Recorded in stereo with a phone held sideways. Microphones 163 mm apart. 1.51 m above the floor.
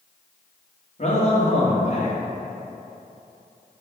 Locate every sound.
1.0 s a man speaking: 50° left (ahead or behind), 2 m